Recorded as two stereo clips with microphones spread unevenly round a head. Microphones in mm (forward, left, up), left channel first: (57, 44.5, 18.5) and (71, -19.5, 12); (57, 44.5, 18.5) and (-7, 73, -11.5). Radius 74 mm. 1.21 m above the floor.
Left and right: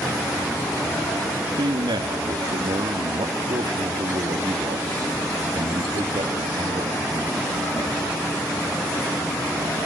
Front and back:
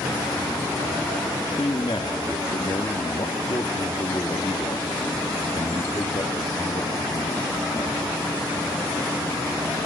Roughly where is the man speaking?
Right.